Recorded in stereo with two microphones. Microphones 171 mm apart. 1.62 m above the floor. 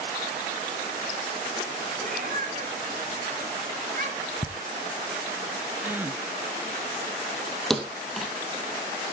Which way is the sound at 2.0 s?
55° right (ahead or behind).